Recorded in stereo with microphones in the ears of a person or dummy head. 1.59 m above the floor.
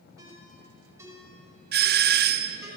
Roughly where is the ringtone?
Centre.